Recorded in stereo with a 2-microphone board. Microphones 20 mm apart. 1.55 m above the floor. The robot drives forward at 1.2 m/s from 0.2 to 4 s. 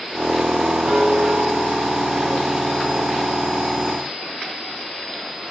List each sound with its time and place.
0.9 s a guitar: 65° right (ahead or behind), 6.5 m; by 4.1 s 80° right, 6 m